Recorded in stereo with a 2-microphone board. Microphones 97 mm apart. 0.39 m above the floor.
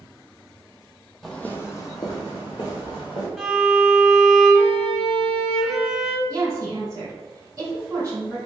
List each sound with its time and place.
1.2 s footsteps: 5° left (ahead or behind), 0.6 m; by 3.3 s 55° left (ahead or behind), 1.8 m
3.4 s a violin: 5° right (ahead or behind), 0.9 m
6.3 s a woman speaking: 30° right (ahead or behind), 1.6 m